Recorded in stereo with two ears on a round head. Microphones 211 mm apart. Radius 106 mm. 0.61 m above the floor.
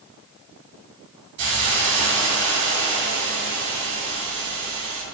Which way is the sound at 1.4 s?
80° right.